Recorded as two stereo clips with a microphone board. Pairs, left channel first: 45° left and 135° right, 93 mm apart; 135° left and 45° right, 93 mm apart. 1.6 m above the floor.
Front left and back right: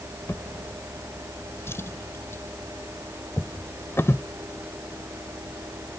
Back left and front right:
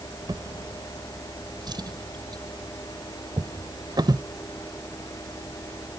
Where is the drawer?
15° right.